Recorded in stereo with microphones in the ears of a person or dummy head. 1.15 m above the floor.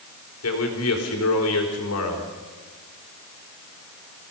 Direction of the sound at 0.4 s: 75° left (ahead or behind).